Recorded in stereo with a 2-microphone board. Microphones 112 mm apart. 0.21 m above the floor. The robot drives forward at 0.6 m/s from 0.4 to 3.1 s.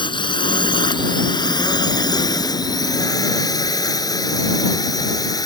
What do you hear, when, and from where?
0.0 s a drone: 45° left (ahead or behind); by 5.5 s 35° left (ahead or behind)